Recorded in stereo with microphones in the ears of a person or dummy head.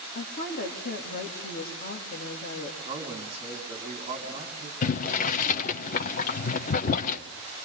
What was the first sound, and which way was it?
A woman speaking, 45° left (ahead or behind).